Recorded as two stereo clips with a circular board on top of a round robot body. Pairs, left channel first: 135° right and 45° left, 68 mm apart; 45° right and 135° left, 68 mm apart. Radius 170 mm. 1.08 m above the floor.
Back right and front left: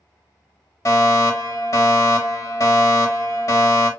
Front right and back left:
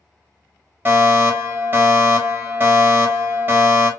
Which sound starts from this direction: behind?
A fire alarm, at 0.8 s.